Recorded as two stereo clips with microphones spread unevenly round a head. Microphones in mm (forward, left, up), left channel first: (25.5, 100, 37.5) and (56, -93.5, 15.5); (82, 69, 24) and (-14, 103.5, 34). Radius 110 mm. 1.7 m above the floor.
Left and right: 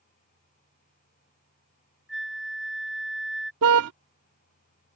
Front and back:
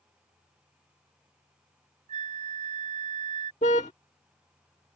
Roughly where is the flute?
Behind.